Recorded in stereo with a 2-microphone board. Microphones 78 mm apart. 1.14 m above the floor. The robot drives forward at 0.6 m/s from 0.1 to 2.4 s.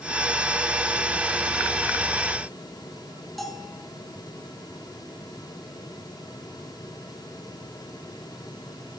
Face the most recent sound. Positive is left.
turn(degrees=0)  # may be behind; listen again after turning